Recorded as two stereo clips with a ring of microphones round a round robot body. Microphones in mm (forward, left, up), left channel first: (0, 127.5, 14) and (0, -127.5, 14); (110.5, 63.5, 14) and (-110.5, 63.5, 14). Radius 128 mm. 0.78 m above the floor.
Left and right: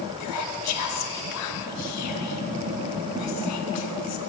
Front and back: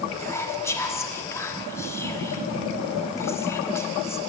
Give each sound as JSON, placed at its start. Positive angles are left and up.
{"t": 0.2, "sound": "whispering", "azimuth_deg": 75, "distance_m": 1.2}